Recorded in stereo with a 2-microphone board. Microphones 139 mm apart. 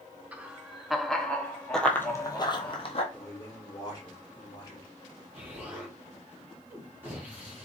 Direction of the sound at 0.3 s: 10° right (ahead or behind).